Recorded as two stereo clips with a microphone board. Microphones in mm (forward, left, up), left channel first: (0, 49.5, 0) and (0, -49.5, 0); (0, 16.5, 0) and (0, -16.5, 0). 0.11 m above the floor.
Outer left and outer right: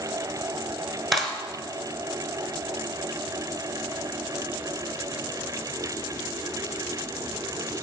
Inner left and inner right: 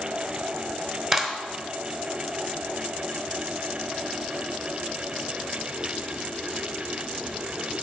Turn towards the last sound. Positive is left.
turn(degrees=0)  # may be behind; listen again after turning